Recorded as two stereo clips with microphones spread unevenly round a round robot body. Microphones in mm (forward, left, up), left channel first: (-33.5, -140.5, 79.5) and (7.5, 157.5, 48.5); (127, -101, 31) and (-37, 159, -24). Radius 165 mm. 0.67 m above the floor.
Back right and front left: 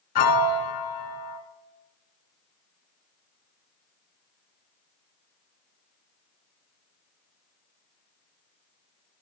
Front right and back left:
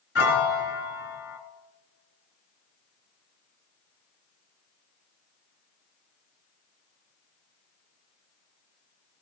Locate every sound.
0.1 s a piano: 110° right, 0.9 m